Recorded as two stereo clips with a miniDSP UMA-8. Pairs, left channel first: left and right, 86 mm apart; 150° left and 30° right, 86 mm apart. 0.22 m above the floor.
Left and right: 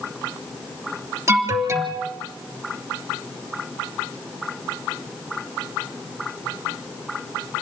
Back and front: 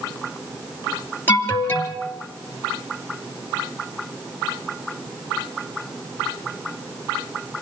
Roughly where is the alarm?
Behind right.